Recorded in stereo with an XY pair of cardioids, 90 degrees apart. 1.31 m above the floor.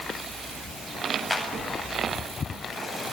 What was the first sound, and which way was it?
A clap, 15° left.